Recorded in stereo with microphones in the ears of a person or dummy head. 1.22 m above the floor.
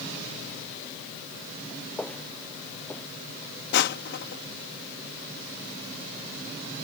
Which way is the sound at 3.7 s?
60° left (ahead or behind).